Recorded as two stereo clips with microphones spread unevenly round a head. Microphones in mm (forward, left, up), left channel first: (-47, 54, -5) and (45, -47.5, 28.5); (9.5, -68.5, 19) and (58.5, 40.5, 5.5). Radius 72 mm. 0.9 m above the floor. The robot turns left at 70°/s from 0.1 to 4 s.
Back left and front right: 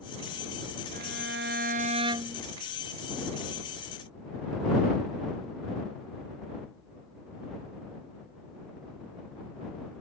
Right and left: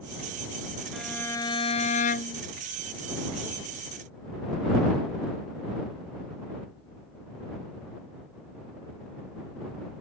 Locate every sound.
0.9 s a violin: 25° right; by 2.4 s 130° right